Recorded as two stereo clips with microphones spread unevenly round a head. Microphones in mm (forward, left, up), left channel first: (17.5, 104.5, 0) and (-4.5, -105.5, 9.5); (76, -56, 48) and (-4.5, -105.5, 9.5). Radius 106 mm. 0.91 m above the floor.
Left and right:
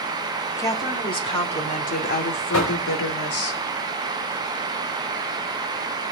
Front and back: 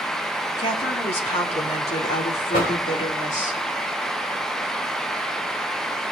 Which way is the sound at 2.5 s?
75° left.